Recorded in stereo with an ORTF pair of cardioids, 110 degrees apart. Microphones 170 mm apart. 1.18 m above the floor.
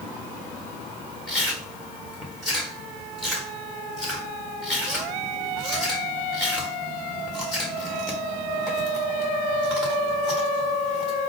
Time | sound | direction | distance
1.3 | chewing | straight ahead | 1.6 m